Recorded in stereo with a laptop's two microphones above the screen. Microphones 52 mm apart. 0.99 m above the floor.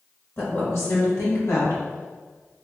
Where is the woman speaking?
50° left (ahead or behind), 1.8 m; by 2.6 s 65° left (ahead or behind), 1.9 m.